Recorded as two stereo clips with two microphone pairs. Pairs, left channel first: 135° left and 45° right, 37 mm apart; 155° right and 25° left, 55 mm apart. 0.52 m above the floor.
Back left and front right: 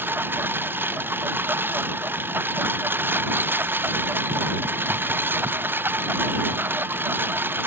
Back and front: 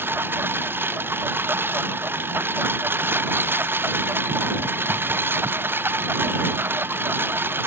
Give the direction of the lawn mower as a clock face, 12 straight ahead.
1 o'clock.